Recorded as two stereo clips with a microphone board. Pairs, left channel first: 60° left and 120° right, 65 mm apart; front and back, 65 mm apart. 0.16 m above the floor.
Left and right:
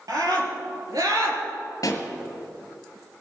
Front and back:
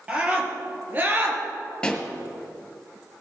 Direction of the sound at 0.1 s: 110° right.